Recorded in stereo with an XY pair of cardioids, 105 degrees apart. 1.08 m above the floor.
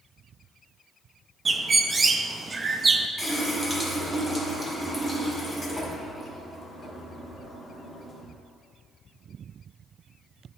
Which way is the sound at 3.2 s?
15° right.